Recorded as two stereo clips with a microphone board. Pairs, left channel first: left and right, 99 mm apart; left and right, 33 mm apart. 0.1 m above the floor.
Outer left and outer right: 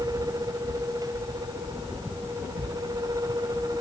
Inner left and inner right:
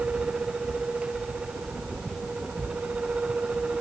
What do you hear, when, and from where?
Only background noise.